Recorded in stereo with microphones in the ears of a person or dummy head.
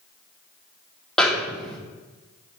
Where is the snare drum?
10° left (ahead or behind), 0.6 m.